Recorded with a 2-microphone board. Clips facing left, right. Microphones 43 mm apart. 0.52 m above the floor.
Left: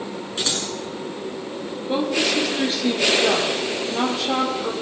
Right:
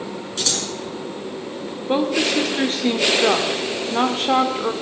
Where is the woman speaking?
45° right (ahead or behind), 1.8 m.